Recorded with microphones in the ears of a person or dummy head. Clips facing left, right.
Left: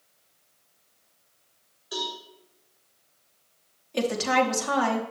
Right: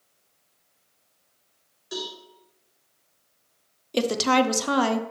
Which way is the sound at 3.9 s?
55° right (ahead or behind).